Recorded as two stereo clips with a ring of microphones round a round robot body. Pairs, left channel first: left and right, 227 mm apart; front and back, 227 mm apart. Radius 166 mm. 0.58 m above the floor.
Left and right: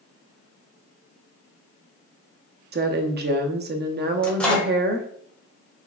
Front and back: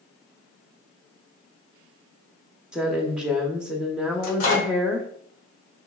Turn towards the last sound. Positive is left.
turn(degrees=5)